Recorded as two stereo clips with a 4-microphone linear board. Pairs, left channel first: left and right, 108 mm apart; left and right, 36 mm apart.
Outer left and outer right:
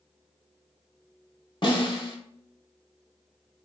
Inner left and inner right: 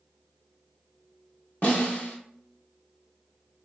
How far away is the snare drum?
About 0.9 m.